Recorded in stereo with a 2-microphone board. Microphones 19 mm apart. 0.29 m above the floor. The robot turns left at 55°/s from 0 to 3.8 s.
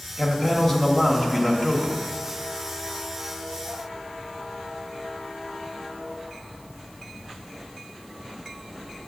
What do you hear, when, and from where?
0.2 s a man speaking: 20° left (ahead or behind), 0.9 m; by 2.0 s 10° left (ahead or behind), 0.9 m